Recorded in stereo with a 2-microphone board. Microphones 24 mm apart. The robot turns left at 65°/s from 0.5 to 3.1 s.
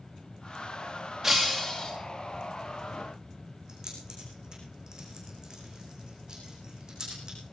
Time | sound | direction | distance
1.2 | breaking glass | 155° right | 2.5 m
3.7 | keys jangling | 30° right (ahead or behind) | 5.5 m